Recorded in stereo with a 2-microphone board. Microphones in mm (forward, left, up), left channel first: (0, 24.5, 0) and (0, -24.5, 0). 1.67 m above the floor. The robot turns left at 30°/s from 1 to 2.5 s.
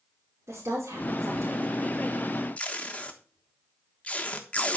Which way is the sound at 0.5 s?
75° right (ahead or behind).